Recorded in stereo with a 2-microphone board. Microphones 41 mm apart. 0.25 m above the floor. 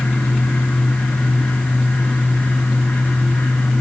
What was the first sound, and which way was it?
Only background noise.